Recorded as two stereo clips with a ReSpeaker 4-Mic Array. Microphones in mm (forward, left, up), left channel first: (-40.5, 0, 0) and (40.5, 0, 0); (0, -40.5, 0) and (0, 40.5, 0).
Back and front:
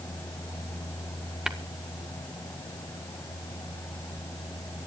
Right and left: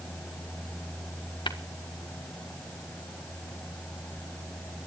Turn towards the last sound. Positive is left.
turn(degrees=-85)